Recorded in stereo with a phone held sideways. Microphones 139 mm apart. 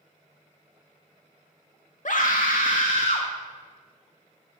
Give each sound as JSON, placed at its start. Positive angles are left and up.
{"t": 2.0, "sound": "a scream", "side_deg": 65, "distance_m": 0.8}